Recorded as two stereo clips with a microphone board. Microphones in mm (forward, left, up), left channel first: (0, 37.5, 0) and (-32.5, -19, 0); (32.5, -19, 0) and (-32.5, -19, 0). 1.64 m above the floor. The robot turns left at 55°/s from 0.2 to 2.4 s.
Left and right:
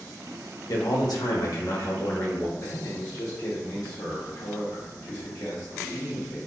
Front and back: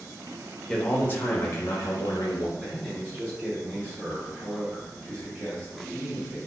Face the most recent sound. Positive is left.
turn(degrees=115)